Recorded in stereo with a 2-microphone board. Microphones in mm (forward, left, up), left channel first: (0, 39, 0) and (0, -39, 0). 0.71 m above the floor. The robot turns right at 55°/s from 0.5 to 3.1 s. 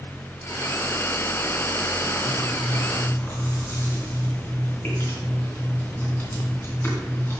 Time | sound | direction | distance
2.2 | chewing | 75° left (ahead or behind) | 3 m